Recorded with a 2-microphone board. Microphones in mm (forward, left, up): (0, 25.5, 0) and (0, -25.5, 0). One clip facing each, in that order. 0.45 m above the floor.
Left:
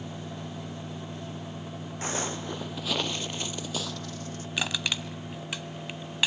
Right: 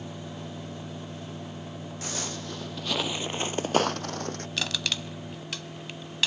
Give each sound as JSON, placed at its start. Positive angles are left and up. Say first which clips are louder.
{"t": 2.0, "sound": "footsteps", "louder": "left 5 dB", "side_deg": 30, "distance_m": 1.2}
{"t": 4.6, "sound": "crushing", "louder": "left 2 dB", "side_deg": 15, "distance_m": 1.1}